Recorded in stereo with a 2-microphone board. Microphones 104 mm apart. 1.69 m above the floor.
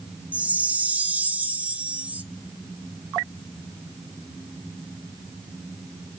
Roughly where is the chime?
Centre.